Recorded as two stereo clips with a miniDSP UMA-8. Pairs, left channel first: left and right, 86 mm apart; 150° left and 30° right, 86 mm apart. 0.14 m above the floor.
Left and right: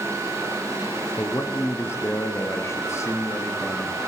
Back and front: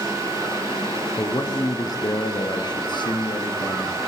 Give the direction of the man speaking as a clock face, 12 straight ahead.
8 o'clock.